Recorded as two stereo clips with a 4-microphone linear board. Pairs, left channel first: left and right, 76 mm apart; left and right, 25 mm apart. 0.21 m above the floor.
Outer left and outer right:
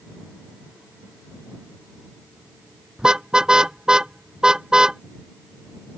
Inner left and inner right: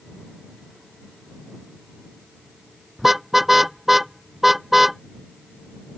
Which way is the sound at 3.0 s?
10° right (ahead or behind).